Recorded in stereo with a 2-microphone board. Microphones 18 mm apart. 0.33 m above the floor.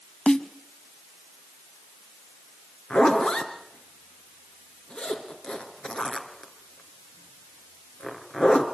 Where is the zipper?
80° left, 3 m.